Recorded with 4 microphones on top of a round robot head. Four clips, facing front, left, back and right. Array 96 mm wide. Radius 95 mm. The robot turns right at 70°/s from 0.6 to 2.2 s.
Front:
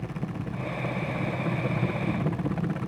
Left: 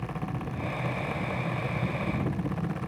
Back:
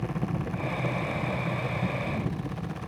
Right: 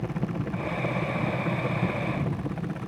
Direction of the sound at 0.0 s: 110° right.